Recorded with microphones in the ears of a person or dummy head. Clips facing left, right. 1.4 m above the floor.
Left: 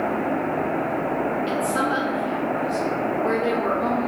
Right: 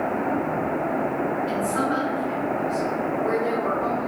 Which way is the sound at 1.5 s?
50° left (ahead or behind).